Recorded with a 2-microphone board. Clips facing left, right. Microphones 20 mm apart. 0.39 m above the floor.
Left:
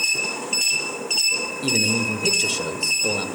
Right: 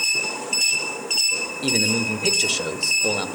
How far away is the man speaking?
About 1.0 m.